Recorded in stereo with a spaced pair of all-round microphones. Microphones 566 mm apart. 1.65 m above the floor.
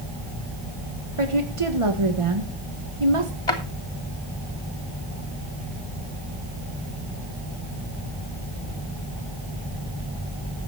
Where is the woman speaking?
60° right (ahead or behind), 2 m.